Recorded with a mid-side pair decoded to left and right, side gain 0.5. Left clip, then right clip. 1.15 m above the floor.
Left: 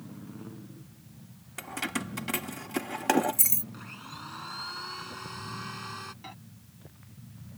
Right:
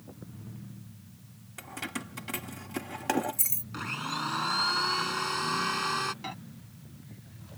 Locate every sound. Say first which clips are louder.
1.6 s keys jangling: left 4 dB; 30° left
3.7 s a blender: right 10 dB; 55° right
6.2 s a microwave: right 6 dB; 40° right